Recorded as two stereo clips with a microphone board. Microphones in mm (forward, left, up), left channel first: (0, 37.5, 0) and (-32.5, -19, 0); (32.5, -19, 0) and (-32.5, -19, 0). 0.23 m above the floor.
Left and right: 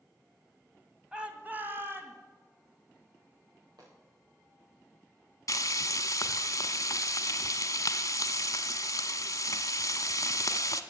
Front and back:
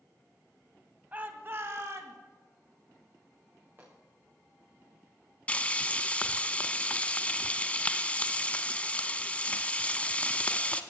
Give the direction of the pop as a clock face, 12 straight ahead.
4 o'clock.